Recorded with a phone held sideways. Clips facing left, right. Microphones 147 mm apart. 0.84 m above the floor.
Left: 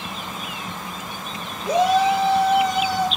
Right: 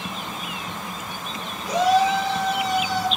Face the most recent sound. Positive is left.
turn(degrees=60)  # may be behind; listen again after turning